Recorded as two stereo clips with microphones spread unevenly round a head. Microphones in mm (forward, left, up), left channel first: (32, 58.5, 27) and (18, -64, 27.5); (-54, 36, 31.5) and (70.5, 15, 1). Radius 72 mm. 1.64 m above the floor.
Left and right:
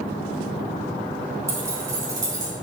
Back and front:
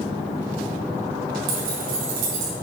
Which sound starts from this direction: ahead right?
Keys jangling, at 1.5 s.